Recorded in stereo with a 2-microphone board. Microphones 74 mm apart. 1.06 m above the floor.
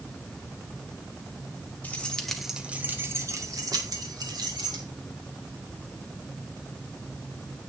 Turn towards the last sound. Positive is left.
turn(degrees=-75)  # may be behind; listen again after turning